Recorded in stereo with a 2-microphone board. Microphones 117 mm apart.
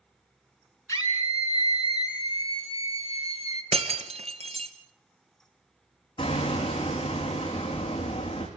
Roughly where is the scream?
Left.